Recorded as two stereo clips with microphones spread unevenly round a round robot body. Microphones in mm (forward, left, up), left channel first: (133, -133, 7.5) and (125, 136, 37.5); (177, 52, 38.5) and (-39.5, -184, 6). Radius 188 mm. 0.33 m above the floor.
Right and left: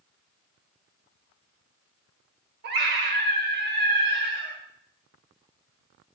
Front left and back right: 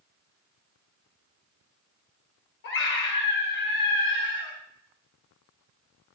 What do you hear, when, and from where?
2.6 s a scream: 80° left, 1.4 m